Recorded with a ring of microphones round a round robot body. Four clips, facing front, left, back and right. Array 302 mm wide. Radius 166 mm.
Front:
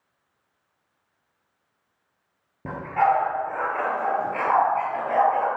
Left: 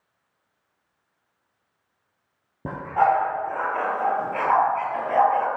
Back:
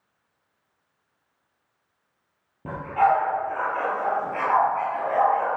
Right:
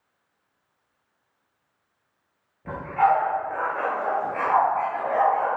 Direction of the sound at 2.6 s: 80° left.